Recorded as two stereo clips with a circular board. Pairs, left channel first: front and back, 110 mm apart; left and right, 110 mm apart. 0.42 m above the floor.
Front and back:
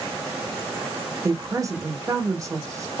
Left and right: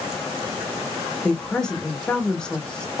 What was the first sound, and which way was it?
A woman speaking, 165° left.